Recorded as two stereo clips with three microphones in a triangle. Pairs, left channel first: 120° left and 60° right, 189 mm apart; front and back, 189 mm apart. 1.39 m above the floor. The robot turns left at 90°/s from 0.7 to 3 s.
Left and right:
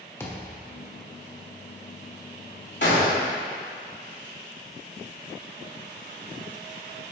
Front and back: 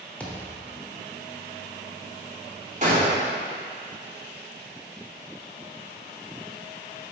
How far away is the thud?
About 1.0 m.